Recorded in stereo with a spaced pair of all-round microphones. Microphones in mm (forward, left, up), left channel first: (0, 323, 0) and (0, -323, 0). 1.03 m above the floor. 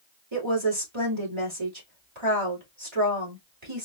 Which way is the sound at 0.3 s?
50° right (ahead or behind).